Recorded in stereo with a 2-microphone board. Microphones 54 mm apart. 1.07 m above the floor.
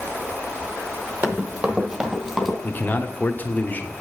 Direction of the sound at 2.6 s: 30° left (ahead or behind).